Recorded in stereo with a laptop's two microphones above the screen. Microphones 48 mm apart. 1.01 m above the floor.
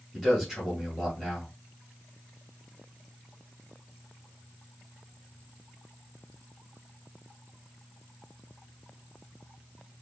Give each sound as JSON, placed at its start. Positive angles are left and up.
{"t": 0.1, "sound": "a man speaking", "side_deg": -5, "distance_m": 2.5}